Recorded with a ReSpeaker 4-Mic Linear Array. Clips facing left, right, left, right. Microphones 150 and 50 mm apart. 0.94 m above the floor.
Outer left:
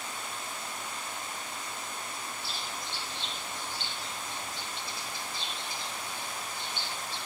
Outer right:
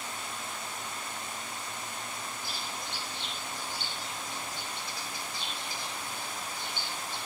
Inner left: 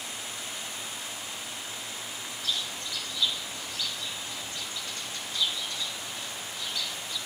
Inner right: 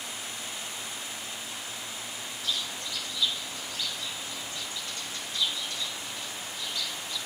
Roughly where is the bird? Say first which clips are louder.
Even, even; centre.